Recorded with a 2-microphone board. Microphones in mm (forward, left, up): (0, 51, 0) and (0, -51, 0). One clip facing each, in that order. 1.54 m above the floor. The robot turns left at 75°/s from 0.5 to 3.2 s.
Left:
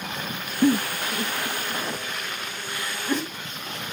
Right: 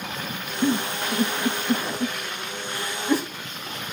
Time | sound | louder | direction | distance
0.6 | a giggle | left 3 dB | 15° left (ahead or behind) | 1.9 m